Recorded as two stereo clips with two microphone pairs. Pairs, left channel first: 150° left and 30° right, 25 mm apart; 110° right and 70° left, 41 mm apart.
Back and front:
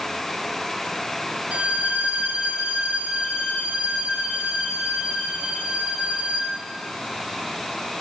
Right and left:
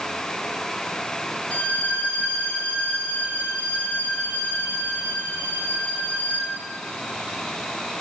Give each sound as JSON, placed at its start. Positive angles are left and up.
{"t": 1.5, "sound": "a violin", "azimuth_deg": -60, "distance_m": 7.5}